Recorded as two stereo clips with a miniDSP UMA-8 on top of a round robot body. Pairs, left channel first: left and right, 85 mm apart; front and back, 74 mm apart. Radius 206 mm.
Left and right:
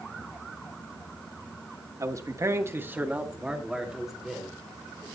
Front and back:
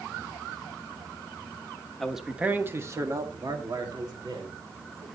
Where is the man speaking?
85° right, 1.6 m; by 5.0 s 175° left, 4 m.